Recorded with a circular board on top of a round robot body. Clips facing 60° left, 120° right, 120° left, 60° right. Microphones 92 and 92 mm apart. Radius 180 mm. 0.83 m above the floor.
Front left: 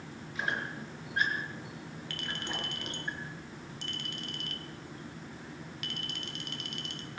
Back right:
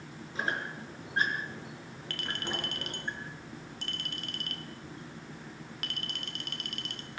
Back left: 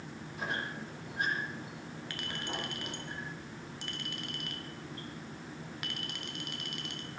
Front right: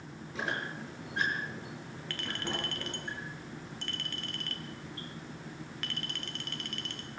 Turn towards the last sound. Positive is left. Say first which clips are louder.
# back right 3 dB, front right 3 dB
turn(degrees=-160)